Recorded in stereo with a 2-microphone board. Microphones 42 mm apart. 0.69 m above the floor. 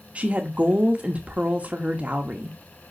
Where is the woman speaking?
30° right (ahead or behind), 1.0 m.